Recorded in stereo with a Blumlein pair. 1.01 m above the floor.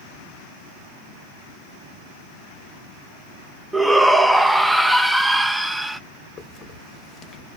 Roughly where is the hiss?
Ahead left.